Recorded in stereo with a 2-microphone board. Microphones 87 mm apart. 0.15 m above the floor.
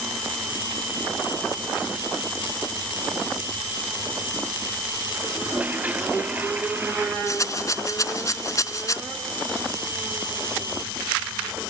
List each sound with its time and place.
5.3 s a toilet flushing: 20° right (ahead or behind)
7.3 s a rattle: 40° left (ahead or behind)